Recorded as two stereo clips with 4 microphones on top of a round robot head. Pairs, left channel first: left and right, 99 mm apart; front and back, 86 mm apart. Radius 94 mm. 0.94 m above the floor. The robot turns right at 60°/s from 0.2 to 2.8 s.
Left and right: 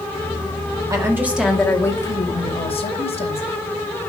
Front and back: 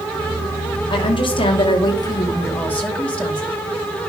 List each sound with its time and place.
0.9 s a woman speaking: 35° right, 2.5 m; by 3.5 s 75° left, 2.5 m